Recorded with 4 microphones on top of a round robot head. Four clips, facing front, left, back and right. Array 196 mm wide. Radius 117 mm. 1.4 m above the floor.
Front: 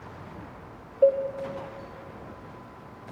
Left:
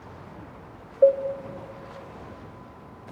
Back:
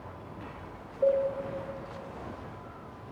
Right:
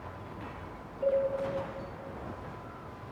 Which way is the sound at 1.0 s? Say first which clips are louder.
Left 10 dB, front 5 dB; 70° left.